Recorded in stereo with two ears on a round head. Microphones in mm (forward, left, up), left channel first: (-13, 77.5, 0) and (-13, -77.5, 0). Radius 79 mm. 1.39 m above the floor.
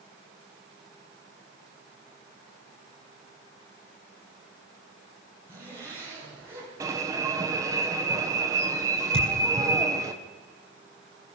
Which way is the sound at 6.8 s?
20° right (ahead or behind).